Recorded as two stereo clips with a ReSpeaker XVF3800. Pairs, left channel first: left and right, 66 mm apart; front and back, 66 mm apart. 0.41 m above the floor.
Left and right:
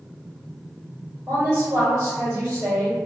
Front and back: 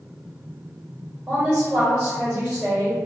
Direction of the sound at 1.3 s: 110° right.